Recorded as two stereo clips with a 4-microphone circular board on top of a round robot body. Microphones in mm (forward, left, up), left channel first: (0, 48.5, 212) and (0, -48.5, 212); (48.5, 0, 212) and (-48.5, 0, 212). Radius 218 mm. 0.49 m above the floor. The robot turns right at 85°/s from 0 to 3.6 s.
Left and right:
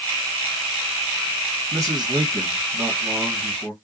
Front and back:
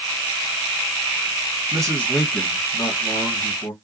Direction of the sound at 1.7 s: 140° right.